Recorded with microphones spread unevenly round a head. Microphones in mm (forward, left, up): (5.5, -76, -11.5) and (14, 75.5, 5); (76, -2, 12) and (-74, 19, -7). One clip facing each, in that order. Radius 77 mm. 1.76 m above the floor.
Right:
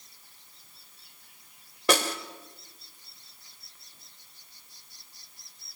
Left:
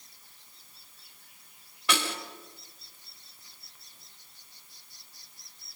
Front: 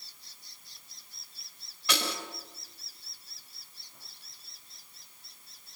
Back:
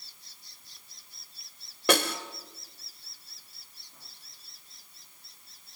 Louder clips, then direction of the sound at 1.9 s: Right 6 dB, back 8 dB; 145° right.